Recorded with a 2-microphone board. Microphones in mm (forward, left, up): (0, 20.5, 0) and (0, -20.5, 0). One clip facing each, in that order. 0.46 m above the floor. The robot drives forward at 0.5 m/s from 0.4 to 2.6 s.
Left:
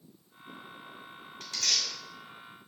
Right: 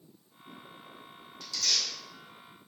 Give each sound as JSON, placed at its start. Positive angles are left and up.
{"t": 1.4, "sound": "tearing paper", "side_deg": 45, "distance_m": 2.0}